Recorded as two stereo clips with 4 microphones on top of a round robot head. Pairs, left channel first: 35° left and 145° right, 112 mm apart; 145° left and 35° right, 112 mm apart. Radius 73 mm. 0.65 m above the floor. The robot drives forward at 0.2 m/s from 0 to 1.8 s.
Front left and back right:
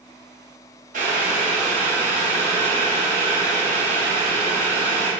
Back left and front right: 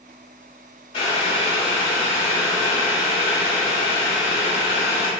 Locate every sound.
0.9 s boiling: 165° right, 0.8 m; by 5.1 s 170° right, 1.0 m